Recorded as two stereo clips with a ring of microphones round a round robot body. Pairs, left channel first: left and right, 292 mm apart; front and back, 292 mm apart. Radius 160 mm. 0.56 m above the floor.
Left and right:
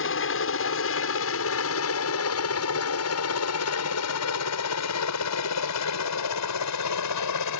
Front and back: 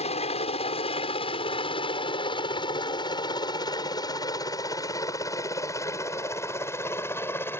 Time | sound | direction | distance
0.0 | a helicopter | 65° left | ?